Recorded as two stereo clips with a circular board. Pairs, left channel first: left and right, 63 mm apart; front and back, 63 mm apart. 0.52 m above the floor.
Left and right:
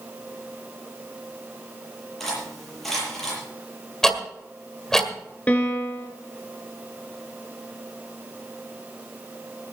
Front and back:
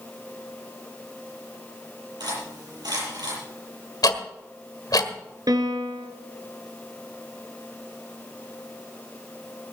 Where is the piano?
155° left, 2.0 m.